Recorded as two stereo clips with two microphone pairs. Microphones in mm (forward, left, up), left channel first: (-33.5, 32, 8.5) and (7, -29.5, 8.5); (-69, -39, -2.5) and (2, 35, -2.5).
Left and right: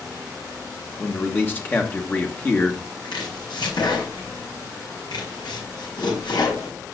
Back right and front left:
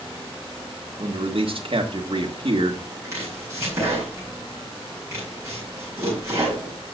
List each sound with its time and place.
1.0 s a man speaking: 60° left, 1.6 m
3.0 s chopping: 105° left, 9 m